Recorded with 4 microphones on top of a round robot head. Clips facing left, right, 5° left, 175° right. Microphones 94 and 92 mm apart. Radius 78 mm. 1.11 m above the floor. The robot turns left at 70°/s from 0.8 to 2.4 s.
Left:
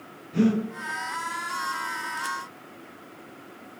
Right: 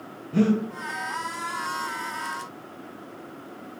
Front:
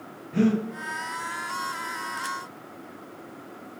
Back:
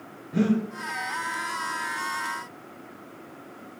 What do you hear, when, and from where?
0.3 s breathing: 105° right, 0.6 m